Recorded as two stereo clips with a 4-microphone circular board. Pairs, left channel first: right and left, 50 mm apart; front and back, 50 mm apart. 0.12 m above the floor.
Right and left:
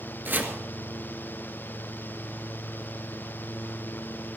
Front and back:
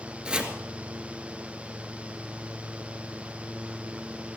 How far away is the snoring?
I don't hear snoring.